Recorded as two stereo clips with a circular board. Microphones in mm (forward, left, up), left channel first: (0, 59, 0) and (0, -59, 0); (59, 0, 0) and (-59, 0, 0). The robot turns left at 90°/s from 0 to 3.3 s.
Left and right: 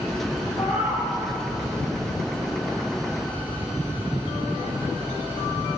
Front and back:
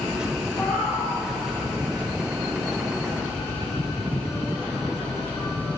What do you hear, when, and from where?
0.6 s a cat meowing: 90° left, 7 m; by 1.1 s 40° left, 7 m